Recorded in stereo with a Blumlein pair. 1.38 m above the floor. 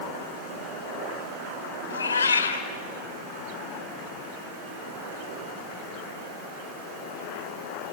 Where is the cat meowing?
65° left, 2.5 m.